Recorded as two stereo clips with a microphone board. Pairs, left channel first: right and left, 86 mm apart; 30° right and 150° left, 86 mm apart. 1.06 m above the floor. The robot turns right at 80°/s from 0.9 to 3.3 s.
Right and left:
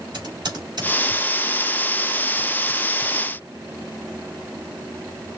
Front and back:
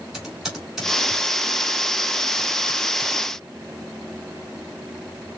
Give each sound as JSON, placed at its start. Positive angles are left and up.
{"t": 0.1, "sound": "typing on a keyboard", "azimuth_deg": 60, "distance_m": 3.0}